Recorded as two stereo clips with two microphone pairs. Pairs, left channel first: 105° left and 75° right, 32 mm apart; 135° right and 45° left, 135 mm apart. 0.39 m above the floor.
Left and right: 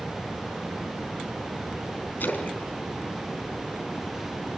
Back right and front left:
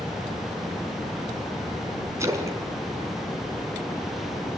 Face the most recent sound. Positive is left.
turn(degrees=110)